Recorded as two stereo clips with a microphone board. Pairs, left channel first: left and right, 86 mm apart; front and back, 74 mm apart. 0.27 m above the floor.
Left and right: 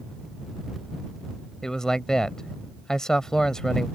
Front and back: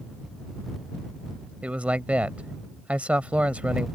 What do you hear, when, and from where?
1.6 s a man speaking: 160° left